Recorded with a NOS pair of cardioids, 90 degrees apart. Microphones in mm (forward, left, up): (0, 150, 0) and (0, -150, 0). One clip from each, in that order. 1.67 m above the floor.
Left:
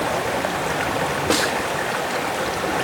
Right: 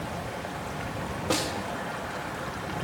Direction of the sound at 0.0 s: 70° left.